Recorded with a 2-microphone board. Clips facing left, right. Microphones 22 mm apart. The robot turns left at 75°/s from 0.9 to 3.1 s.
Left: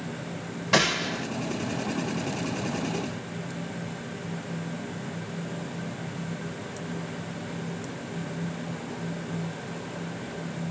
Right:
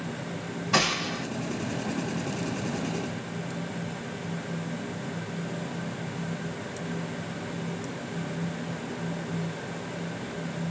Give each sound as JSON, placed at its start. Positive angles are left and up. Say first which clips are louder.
{"t": 0.7, "sound": "a gunshot", "louder": "left 2 dB", "side_deg": 50, "distance_m": 2.0}